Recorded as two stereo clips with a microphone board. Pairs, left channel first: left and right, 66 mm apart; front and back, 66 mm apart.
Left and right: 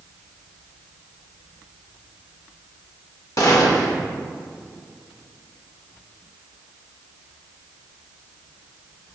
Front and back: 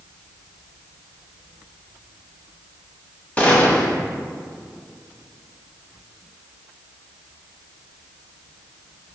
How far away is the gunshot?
About 1.3 m.